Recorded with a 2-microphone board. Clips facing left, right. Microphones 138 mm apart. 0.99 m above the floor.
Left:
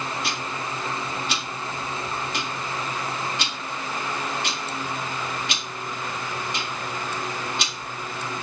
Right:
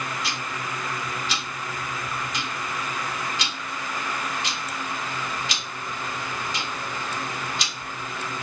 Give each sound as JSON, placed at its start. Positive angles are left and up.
{"t": 0.2, "sound": "ticking", "side_deg": 55, "distance_m": 2.0}